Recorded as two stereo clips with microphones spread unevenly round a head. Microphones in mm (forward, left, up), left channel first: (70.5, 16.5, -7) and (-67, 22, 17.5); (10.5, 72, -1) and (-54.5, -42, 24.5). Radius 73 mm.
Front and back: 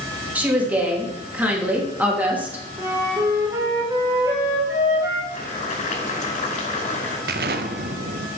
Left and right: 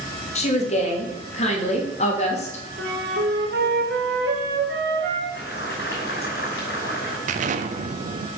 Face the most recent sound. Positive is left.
turn(degrees=-150)